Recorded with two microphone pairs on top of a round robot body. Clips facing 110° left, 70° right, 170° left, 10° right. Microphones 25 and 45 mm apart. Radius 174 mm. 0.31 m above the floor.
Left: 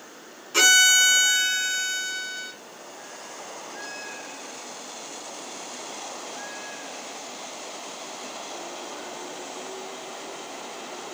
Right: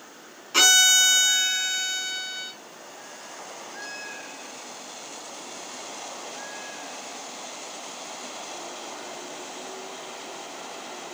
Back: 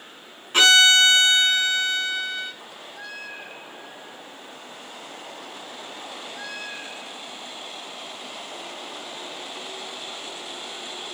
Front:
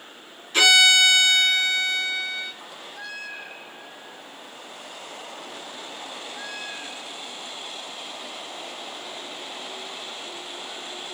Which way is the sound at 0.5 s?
130° right.